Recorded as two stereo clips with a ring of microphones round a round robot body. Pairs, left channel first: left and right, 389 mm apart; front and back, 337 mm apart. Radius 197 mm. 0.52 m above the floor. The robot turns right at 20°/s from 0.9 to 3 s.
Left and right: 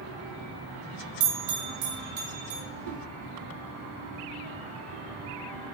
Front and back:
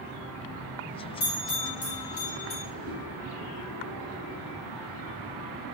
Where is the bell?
70° right, 2.5 m; by 2.6 s 40° right, 2.5 m.